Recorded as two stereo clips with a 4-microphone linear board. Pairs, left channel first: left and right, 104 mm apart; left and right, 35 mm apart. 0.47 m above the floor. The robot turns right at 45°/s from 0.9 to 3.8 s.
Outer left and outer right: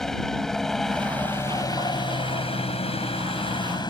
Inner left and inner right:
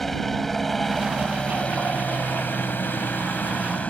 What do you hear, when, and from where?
0.0 s a helicopter: 5° left (ahead or behind); by 3.9 s 40° left (ahead or behind)